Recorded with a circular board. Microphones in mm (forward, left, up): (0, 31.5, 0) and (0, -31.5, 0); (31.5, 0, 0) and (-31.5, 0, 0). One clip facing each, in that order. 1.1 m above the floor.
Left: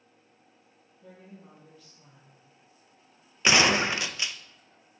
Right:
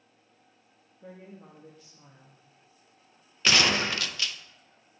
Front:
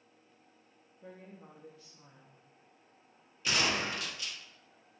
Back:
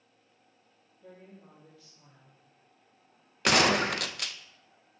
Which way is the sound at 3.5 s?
160° left.